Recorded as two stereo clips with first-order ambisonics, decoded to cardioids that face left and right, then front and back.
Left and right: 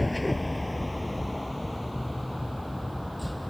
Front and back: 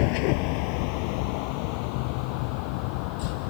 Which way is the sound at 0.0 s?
5° left.